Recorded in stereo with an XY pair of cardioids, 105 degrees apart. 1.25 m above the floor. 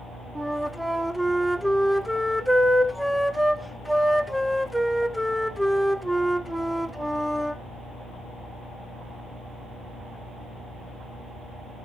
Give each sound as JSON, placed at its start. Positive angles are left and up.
{"t": 0.3, "sound": "a flute", "azimuth_deg": -5, "distance_m": 0.7}